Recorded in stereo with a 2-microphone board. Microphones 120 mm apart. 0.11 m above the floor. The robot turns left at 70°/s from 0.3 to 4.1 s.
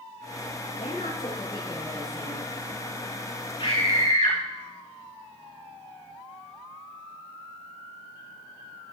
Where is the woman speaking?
85° left, 9 m; by 2.5 s 35° right, 9 m.